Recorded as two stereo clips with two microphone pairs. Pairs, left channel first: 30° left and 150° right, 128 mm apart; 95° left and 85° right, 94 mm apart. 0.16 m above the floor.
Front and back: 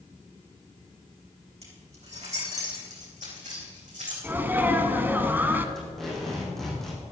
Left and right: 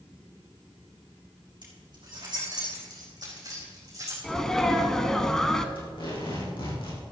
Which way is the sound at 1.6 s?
120° right.